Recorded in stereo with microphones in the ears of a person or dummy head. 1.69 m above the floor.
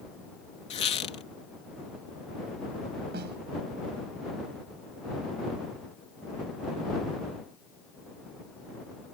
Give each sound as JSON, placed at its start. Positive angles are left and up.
{"t": 0.7, "sound": "a squeak", "side_deg": 35}
{"t": 3.1, "sound": "a snare drum", "side_deg": -55}